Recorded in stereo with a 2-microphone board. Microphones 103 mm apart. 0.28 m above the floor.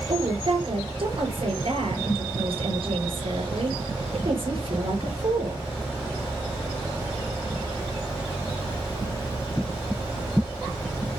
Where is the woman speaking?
60° right (ahead or behind), 6.5 m.